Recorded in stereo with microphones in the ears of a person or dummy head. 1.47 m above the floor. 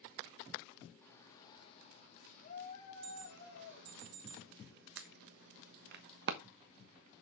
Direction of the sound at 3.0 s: 55° right (ahead or behind).